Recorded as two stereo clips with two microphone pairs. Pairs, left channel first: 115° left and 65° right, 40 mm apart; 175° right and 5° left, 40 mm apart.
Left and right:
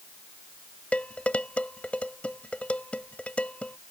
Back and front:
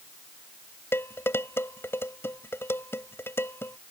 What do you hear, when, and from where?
0.9 s dishes clattering: 170° left